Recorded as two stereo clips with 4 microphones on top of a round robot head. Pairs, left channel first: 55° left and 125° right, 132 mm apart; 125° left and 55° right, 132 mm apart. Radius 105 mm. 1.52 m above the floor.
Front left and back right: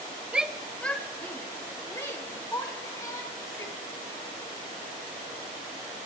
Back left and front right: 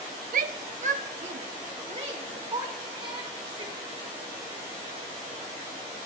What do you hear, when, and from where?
0.3 s a shout: 40° right, 0.7 m; by 3.8 s 5° right, 2.5 m